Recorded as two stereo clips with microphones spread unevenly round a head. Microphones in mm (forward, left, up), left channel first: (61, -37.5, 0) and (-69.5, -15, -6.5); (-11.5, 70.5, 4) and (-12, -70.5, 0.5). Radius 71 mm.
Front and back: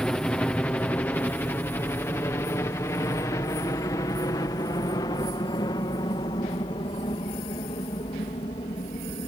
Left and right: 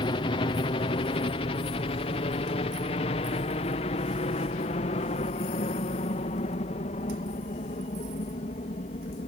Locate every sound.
0.0 s a helicopter: 75° left; by 9.3 s 45° left